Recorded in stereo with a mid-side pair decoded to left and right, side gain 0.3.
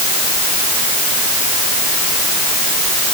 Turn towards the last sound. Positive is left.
No sound to turn to.